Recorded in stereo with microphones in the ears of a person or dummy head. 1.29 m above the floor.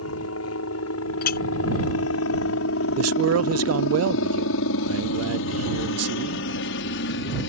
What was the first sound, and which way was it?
A helicopter, 70° left (ahead or behind).